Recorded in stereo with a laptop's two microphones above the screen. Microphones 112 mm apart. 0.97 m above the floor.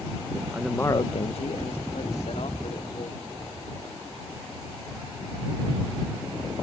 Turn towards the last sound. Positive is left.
turn(degrees=70)  # may be behind; listen again after turning